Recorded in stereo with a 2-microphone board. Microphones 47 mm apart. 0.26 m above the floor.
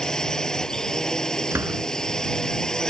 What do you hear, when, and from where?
0.0 s a drone: 15° left (ahead or behind)
1.5 s a door slam: 65° right (ahead or behind)